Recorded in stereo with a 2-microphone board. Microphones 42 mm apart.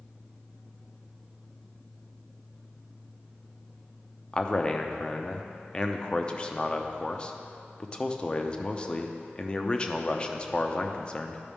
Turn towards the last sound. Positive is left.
turn(degrees=25)  # may be behind; listen again after turning